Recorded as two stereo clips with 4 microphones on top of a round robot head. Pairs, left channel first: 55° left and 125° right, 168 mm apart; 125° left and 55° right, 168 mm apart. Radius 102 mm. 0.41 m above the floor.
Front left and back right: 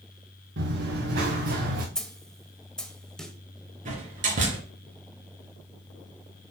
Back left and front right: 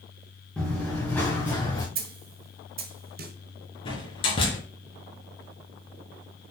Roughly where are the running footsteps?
Behind right.